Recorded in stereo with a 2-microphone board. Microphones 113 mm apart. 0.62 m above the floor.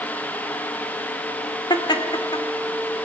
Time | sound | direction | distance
1.7 | laughter | 40° left (ahead or behind) | 1.9 m